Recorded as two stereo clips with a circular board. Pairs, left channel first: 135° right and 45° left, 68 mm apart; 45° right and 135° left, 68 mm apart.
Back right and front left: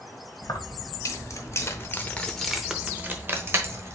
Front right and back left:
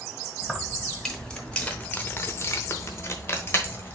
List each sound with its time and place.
0.4 s keys jangling: 135° right, 1.6 m; by 4.0 s 10° left, 1.4 m